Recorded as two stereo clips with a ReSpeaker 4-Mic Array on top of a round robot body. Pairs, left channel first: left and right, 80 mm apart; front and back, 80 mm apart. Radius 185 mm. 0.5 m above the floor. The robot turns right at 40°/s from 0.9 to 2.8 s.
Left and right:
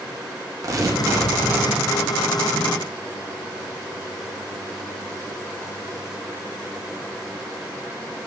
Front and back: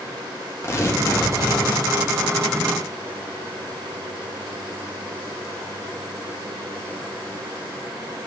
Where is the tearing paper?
50° right, 1.5 m; by 1.9 s 10° right, 1.5 m.